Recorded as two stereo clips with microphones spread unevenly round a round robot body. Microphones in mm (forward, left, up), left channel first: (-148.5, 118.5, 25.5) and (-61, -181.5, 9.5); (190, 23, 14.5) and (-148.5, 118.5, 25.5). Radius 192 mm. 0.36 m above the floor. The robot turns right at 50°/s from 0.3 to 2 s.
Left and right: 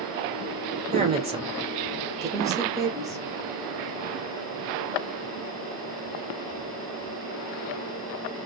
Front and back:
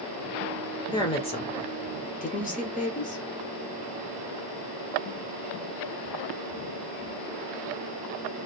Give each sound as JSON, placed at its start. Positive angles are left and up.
{"t": 0.9, "sound": "a woman speaking", "azimuth_deg": -75, "distance_m": 0.8}